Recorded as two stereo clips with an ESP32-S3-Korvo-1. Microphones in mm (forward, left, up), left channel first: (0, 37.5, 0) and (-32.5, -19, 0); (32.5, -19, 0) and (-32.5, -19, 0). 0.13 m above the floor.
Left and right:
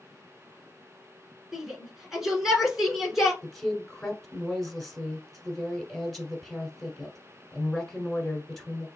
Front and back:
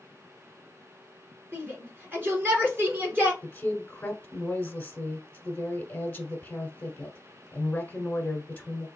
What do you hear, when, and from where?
1.5 s a shout: 160° left, 1.7 m
3.4 s a woman speaking: 20° right, 1.2 m